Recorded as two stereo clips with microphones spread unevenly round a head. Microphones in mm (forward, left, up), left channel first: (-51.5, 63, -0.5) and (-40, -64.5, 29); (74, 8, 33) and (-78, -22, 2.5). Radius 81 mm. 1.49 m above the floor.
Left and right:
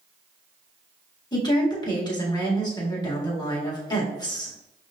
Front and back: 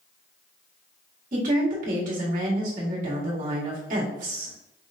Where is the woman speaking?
155° left, 2.0 m.